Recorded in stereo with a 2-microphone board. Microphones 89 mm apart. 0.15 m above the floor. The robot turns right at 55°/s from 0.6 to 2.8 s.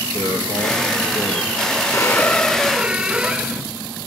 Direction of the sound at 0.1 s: 65° right.